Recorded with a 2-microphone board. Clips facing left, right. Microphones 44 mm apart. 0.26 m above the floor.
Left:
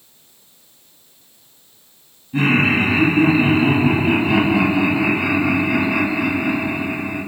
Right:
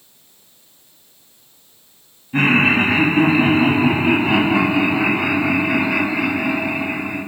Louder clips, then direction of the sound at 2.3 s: Right 1 dB; 40° right (ahead or behind).